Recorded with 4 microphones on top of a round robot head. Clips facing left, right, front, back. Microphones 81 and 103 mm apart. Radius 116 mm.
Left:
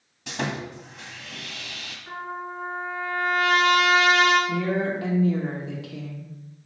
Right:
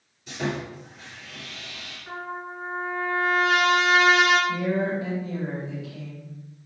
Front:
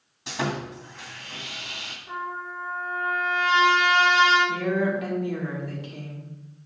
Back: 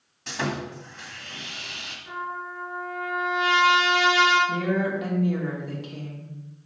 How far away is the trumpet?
About 3.5 m.